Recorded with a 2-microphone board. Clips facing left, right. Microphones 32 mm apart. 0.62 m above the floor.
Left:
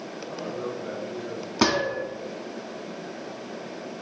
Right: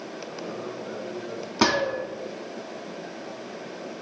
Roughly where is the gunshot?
Centre.